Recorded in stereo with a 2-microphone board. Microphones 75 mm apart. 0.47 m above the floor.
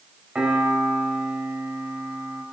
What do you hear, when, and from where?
0.3 s a piano: 15° right (ahead or behind), 2.5 m